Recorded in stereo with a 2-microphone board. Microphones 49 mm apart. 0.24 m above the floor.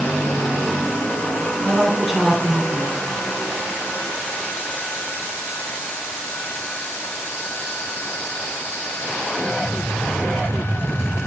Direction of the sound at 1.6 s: 5° right (ahead or behind).